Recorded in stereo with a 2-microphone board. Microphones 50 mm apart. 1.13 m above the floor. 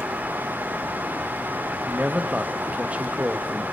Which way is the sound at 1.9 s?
25° right (ahead or behind).